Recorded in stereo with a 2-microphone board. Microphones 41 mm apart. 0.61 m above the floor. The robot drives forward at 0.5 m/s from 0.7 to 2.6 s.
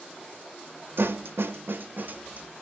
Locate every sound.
1.0 s a snare drum: 65° right (ahead or behind), 0.5 m; by 2.5 s 40° right (ahead or behind), 0.8 m